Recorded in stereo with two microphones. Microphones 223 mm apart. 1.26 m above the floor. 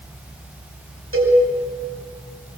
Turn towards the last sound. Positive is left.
turn(degrees=-75)  # may be behind; listen again after turning